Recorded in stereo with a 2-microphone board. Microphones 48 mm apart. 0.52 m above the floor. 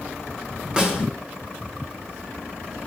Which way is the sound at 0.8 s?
20° right (ahead or behind).